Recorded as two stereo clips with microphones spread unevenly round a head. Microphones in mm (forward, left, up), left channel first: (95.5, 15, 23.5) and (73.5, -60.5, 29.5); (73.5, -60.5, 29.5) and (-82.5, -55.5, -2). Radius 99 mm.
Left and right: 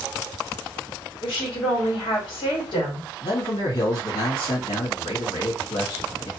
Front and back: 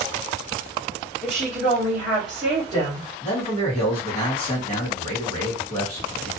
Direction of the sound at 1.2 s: 90° left.